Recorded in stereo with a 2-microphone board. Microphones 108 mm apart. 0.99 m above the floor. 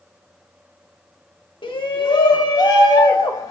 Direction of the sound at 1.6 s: 50° left (ahead or behind).